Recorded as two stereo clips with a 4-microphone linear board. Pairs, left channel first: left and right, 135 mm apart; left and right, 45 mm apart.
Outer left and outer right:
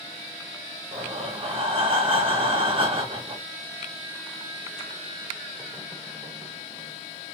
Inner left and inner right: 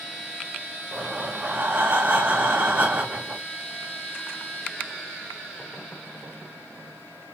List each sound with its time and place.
0.9 s breathing: 45° right (ahead or behind), 0.8 m